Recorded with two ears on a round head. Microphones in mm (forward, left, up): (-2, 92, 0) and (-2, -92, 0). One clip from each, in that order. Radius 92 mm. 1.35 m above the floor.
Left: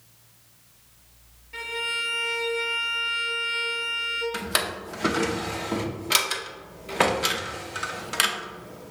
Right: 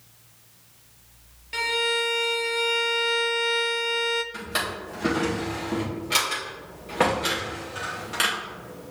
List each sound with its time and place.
1.5 s a violin: 75° right (ahead or behind), 0.5 m
4.3 s a drawer: 35° left (ahead or behind), 0.7 m